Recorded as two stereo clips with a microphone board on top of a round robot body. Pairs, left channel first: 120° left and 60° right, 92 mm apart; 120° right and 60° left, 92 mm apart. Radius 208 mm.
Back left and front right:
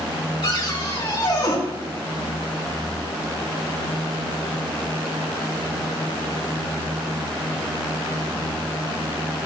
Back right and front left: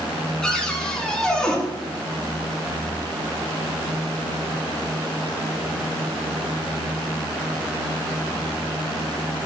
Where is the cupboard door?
160° left, 3.5 m.